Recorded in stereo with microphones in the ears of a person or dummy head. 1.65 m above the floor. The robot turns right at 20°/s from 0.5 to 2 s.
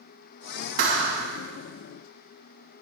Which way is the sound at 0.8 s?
60° right (ahead or behind).